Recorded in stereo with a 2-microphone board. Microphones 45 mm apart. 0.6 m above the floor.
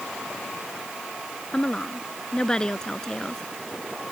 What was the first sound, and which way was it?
A woman speaking, 20° left (ahead or behind).